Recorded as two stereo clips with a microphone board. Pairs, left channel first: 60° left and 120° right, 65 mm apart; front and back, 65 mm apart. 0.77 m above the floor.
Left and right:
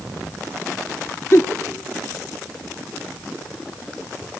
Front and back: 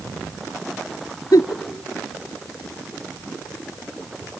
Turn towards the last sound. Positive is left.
turn(degrees=15)